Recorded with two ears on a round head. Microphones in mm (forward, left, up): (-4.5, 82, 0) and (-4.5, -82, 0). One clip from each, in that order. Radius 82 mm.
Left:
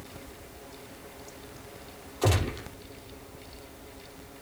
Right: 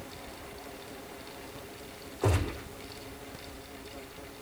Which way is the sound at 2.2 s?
75° left (ahead or behind).